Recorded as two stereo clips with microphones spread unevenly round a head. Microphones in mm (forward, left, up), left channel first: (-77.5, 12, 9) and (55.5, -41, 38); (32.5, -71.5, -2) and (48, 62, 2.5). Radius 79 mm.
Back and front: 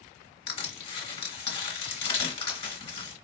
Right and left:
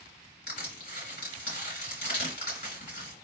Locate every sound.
0.5 s crushing: 145° right, 3 m